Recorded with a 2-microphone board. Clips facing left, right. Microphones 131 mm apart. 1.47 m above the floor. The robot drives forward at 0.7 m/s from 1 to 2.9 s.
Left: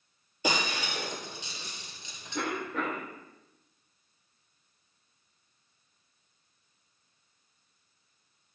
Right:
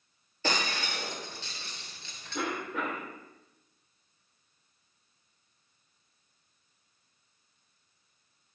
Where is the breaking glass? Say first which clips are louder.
Left 1 dB; 15° left (ahead or behind), 1.8 m; by 2.4 s 20° left (ahead or behind), 1.5 m.